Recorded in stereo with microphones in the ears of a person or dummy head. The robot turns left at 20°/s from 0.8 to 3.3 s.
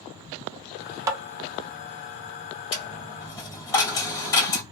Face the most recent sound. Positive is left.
turn(degrees=20)  # may be behind; listen again after turning